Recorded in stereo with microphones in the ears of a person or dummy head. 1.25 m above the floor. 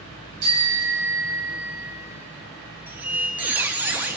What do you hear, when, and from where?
0.4 s a bicycle bell: 55° right (ahead or behind), 6 m; by 1.5 s 45° right (ahead or behind), 7 m
2.9 s a squeak: 10° right (ahead or behind), 0.7 m